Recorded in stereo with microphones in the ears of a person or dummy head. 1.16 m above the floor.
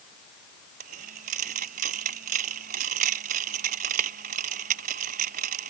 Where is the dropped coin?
40° right (ahead or behind).